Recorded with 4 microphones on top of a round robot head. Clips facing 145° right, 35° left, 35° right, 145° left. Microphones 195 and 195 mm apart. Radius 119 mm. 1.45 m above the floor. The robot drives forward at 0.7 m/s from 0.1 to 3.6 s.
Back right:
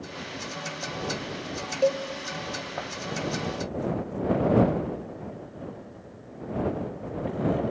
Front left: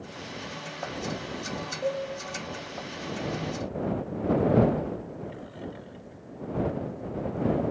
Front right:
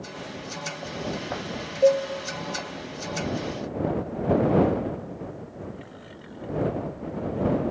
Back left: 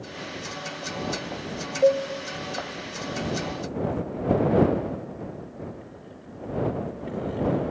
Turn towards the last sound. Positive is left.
turn(degrees=-165)